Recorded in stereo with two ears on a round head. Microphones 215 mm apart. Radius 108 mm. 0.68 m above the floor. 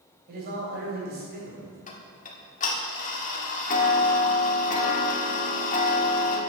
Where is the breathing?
No breathing in this recording.